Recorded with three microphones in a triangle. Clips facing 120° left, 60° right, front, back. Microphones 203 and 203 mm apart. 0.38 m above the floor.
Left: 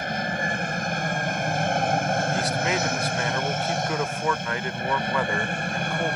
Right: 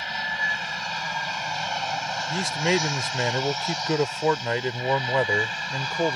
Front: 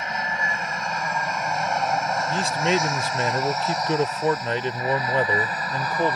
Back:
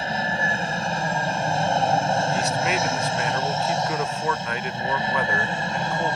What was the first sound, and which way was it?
An aircraft, 130° left.